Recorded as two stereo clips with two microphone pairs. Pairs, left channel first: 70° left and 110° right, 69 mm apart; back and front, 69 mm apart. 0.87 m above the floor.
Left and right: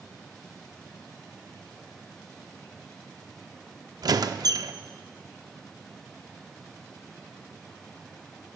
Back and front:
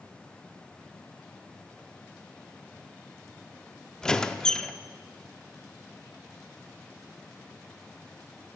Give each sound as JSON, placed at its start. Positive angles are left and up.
{"t": 4.0, "sound": "a squeak", "azimuth_deg": -105, "distance_m": 0.6}